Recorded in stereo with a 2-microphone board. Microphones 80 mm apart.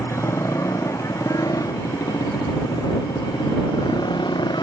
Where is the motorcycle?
40° left (ahead or behind); by 4.6 s 75° left (ahead or behind).